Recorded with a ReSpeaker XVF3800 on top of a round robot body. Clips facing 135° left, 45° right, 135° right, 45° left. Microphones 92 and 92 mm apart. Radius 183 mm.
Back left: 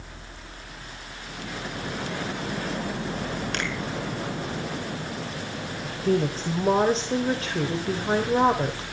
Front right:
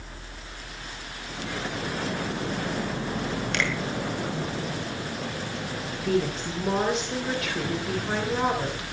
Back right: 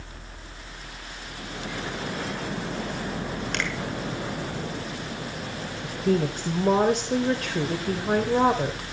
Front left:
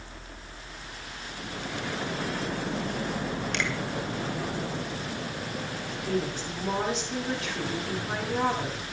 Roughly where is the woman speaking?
Behind.